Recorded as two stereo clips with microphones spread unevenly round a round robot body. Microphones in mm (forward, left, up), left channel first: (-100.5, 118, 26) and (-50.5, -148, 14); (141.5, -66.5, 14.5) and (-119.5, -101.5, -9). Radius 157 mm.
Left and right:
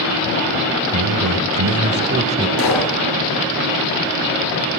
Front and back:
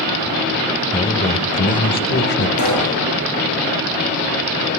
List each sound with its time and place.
0.9 s a man speaking: 65° right, 3 m; by 2.5 s 15° right, 1.7 m
2.6 s a pop: 50° left, 4.5 m